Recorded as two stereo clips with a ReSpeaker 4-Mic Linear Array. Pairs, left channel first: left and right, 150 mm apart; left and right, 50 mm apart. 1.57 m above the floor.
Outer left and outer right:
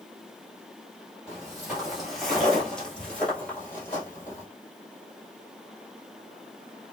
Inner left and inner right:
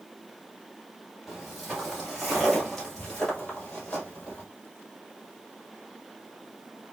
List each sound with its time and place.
1.3 s footsteps: 5° right (ahead or behind), 1.7 m; by 4.5 s 15° left (ahead or behind), 1.9 m